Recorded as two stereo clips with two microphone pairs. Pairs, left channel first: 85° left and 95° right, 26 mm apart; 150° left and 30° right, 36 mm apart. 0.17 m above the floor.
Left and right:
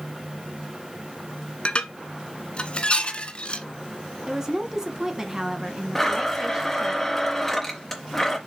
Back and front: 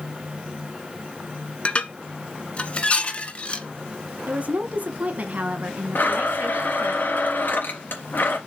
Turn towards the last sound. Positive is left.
turn(degrees=160)